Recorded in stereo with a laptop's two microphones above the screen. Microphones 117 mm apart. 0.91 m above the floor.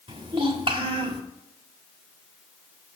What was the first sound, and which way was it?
A child speaking, 45° right (ahead or behind).